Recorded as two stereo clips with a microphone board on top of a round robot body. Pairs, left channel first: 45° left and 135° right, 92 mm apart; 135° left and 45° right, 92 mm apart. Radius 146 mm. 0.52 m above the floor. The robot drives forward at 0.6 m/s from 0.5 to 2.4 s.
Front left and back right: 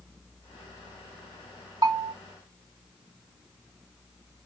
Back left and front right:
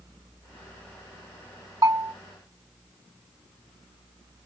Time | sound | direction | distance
1.8 | a bell | 95° right | 1.7 m